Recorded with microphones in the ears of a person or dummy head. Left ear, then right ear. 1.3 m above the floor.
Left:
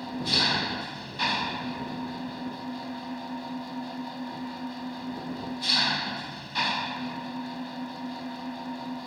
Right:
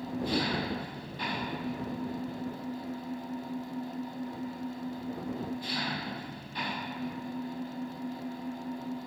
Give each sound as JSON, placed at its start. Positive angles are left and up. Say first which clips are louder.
{"t": 0.0, "sound": "an engine running", "louder": "left 7 dB", "side_deg": 35}